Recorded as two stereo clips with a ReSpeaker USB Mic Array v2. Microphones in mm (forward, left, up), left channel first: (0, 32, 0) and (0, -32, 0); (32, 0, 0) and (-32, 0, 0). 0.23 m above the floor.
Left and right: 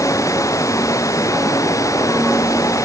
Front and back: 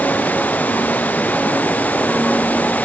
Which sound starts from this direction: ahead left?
Running water, at 0.0 s.